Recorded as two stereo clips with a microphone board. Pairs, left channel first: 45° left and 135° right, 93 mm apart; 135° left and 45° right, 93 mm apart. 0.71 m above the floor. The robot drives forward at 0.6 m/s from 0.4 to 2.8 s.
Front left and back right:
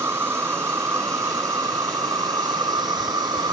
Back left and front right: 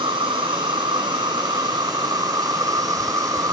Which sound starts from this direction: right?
An insect, at 0.0 s.